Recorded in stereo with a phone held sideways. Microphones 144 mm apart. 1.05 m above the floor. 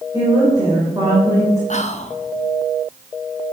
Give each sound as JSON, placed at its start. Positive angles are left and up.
{"t": 0.1, "sound": "a woman speaking", "side_deg": -25, "distance_m": 3.5}
{"t": 1.7, "sound": "whispering", "side_deg": 55, "distance_m": 1.1}